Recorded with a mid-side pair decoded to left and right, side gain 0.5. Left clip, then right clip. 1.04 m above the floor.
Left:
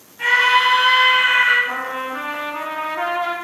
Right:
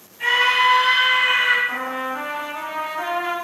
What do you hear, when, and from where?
0.2 s a scream: 60° left, 1.0 m
1.7 s a trumpet: 60° left, 0.9 m